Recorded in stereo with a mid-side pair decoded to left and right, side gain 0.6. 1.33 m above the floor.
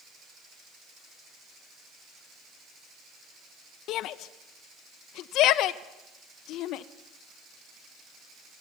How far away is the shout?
About 0.8 m.